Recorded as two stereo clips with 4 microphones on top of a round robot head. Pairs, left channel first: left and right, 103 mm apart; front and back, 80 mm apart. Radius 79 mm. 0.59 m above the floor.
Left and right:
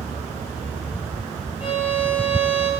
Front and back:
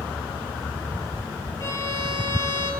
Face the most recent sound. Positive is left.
turn(degrees=45)